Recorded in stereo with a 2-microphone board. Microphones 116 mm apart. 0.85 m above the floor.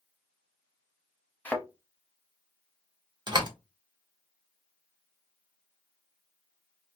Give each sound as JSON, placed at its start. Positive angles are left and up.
{"t": 1.4, "sound": "a thud", "side_deg": 15, "distance_m": 0.7}
{"t": 3.3, "sound": "a door slam", "side_deg": -40, "distance_m": 1.1}